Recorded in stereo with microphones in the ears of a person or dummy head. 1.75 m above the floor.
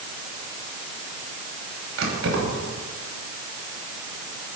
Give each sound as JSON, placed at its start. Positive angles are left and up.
{"t": 2.0, "sound": "keys jangling", "side_deg": -80, "distance_m": 6.5}